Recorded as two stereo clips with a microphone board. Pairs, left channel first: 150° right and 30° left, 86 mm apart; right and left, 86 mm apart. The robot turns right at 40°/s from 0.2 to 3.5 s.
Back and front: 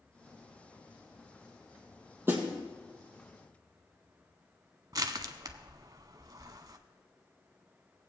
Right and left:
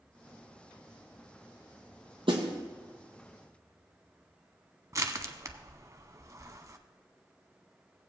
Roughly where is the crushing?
Ahead left.